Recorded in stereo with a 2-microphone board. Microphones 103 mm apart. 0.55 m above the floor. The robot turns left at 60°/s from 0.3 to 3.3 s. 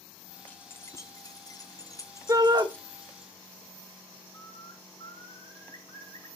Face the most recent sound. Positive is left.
turn(degrees=45)  # may be behind; listen again after turning